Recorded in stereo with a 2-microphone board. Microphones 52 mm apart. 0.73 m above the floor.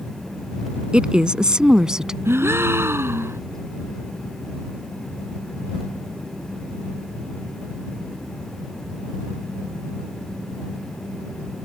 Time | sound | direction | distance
0.9 | a woman speaking | 20° right (ahead or behind) | ?
2.2 | a gasp | 55° right (ahead or behind) | ?